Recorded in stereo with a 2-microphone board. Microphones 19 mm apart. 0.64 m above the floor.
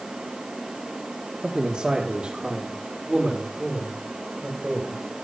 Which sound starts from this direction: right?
A man speaking, at 1.4 s.